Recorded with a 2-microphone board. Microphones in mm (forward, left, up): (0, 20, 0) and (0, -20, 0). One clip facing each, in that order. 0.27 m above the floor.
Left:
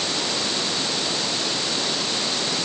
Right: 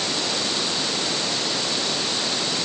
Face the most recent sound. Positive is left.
No sound to turn to.